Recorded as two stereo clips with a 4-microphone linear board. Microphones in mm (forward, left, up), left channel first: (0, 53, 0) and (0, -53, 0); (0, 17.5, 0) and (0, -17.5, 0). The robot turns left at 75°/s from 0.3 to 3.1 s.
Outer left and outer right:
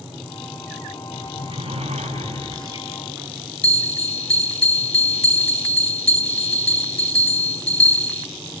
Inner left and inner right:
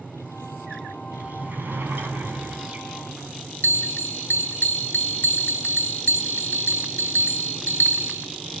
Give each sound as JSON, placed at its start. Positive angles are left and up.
{"t": 1.1, "sound": "a sliding door", "azimuth_deg": -25, "distance_m": 5.5}
{"t": 3.6, "sound": "a bell", "side_deg": 70, "distance_m": 0.7}